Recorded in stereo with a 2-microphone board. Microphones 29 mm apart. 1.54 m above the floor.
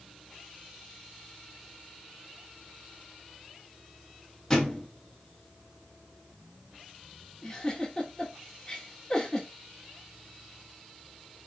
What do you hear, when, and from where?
4.5 s a thud: 10° left (ahead or behind), 2.5 m
7.4 s a giggle: 20° left (ahead or behind), 2.5 m